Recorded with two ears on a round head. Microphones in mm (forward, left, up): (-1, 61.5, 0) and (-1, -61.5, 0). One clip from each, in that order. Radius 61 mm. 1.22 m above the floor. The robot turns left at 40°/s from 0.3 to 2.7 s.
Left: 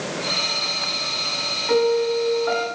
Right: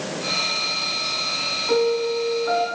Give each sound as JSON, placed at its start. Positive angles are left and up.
{"t": 1.7, "sound": "a piano", "azimuth_deg": 145, "distance_m": 3.0}